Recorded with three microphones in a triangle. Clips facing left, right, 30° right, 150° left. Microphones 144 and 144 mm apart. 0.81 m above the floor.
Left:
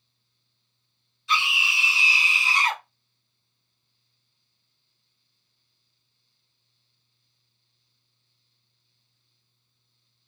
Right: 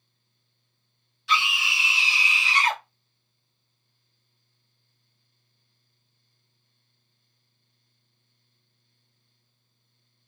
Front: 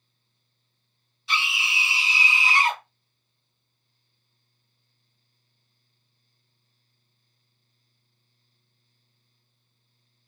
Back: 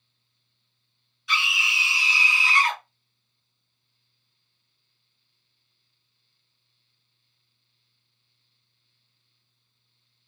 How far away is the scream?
About 1.9 m.